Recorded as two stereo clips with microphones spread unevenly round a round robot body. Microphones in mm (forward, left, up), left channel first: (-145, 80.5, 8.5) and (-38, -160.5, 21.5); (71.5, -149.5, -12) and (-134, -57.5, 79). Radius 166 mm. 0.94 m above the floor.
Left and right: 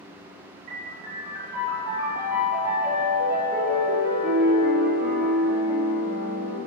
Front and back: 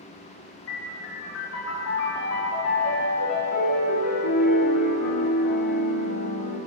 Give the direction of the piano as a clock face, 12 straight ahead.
12 o'clock.